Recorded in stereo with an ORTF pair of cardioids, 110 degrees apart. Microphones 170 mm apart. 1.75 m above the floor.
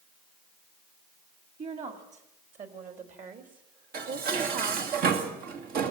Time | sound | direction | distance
1.6 | a woman speaking | 45° right | 4.5 m
3.9 | dishes clattering | 70° right | 2.5 m